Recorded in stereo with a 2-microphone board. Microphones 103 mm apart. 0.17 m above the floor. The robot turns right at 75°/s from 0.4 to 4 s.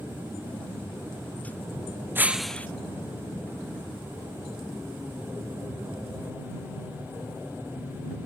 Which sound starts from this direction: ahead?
Breaking glass, at 2.1 s.